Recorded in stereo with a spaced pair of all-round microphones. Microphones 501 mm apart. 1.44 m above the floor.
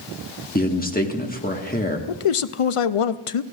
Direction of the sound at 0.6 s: 15° left (ahead or behind).